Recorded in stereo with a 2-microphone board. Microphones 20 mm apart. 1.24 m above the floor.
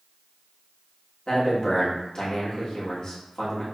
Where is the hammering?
No hammering in this recording.